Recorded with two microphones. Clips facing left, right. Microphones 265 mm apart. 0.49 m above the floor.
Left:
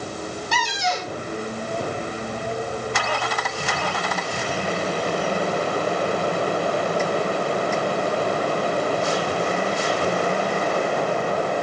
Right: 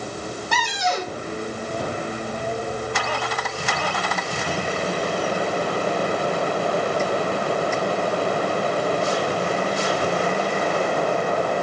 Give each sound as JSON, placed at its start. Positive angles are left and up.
{"t": 0.5, "sound": "a cupboard door", "side_deg": -60, "distance_m": 3.5}